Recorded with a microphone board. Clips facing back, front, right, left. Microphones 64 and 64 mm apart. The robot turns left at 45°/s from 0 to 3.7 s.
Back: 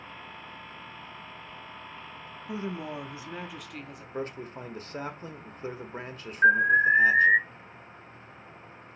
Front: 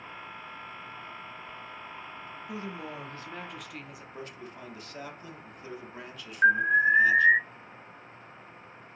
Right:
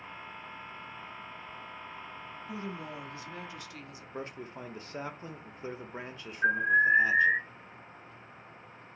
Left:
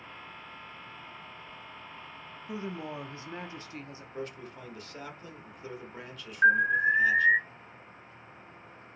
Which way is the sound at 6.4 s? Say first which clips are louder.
Back 2 dB, left 2 dB; 65° left.